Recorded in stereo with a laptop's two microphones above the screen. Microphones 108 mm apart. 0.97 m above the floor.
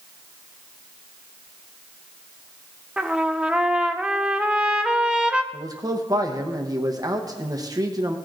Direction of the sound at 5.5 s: 35° right (ahead or behind).